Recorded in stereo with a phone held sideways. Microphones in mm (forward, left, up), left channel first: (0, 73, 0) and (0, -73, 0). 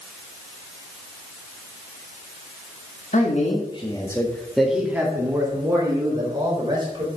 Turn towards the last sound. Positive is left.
turn(degrees=-35)  # may be behind; listen again after turning